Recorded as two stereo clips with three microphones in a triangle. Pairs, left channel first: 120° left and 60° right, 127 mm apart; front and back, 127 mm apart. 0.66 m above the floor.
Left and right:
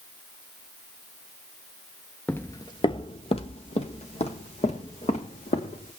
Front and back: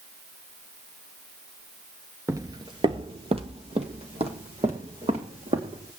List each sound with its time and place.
2.3 s footsteps: 175° left, 0.6 m; by 5.9 s 145° left, 3.5 m